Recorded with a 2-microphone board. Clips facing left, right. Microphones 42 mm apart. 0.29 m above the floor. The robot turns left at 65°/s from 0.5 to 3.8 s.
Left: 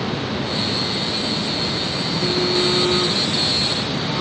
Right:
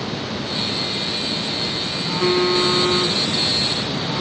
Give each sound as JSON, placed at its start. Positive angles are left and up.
{"t": 2.0, "sound": "a phone buzzing", "azimuth_deg": -95, "distance_m": 3.0}